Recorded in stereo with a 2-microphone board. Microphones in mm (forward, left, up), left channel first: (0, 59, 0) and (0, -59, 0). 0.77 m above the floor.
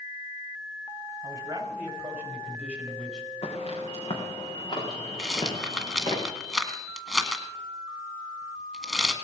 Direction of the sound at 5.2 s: 5° right (ahead or behind).